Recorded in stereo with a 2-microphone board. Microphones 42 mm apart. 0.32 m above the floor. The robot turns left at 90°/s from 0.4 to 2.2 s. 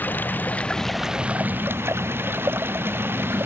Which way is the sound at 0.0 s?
50° left.